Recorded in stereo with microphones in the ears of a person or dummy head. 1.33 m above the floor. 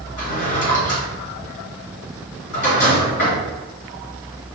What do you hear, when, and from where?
0.2 s a drawer: 75° left (ahead or behind), 1.8 m